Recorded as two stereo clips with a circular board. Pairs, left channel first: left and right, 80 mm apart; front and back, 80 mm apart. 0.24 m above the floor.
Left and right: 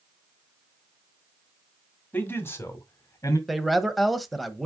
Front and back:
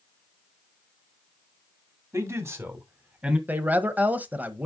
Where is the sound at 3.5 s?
175° right, 1.0 m.